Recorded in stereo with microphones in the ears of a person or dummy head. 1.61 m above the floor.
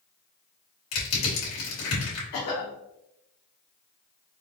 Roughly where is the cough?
Left.